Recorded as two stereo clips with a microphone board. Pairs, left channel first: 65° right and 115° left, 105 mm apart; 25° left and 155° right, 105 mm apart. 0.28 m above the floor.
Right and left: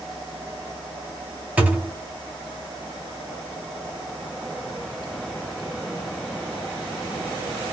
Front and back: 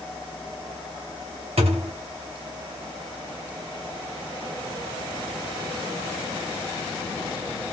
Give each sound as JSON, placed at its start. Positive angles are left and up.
{"t": 1.6, "sound": "a thud", "azimuth_deg": -175, "distance_m": 1.7}